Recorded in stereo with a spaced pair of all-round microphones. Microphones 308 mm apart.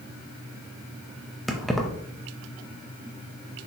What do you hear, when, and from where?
1.5 s keys jangling: centre (ahead or behind), 0.9 m